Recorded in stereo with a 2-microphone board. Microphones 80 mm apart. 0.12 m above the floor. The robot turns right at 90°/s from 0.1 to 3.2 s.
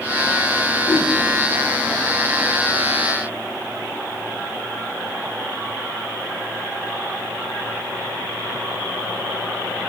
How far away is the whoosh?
About 1.3 m.